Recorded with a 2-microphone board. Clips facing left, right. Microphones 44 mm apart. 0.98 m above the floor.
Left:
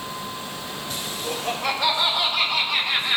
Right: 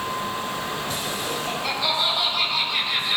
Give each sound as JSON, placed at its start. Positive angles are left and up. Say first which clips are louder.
{"t": 1.2, "sound": "laughter", "louder": "left 4 dB", "side_deg": 75, "distance_m": 4.5}